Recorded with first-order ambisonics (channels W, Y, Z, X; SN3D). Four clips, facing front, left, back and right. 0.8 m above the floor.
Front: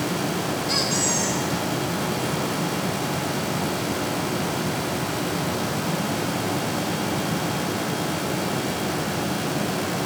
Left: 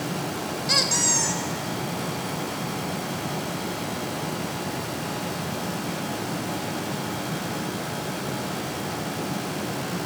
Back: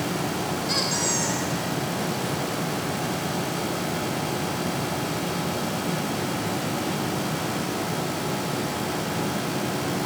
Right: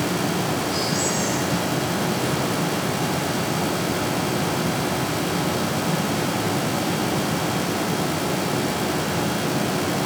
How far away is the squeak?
About 1.8 m.